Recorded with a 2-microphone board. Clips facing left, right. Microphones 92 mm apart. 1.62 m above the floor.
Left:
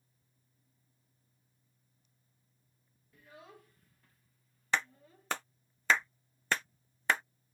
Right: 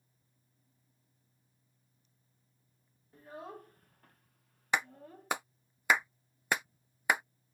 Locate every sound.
3.1 s a child speaking: 40° right (ahead or behind); by 5.3 s 55° right (ahead or behind)
4.7 s a clap: 15° right (ahead or behind)